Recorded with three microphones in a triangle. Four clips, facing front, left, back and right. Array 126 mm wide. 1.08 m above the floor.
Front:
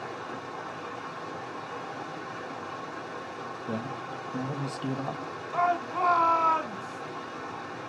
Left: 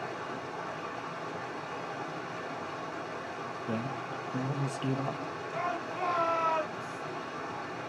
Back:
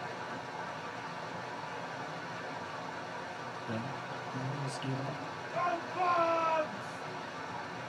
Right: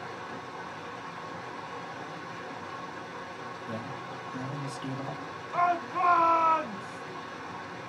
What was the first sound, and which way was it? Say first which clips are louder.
Running water: left 2 dB, front 3 dB; 30° left.